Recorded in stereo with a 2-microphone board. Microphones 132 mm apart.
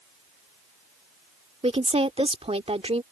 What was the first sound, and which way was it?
A woman speaking, 50° right (ahead or behind).